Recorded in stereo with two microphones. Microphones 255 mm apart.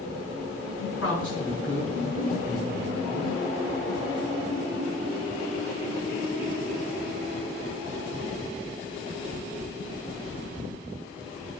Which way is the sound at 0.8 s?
55° left (ahead or behind).